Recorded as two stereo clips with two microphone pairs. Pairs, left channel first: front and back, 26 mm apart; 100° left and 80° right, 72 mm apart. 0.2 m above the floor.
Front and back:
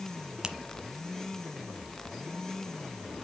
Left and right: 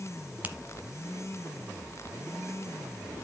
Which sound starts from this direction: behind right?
A finger snap, at 0.4 s.